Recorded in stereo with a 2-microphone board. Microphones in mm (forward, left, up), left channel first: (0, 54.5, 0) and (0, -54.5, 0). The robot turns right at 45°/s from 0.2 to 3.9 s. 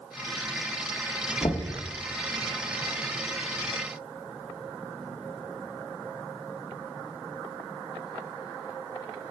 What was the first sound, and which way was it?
Knocking, 40° left (ahead or behind).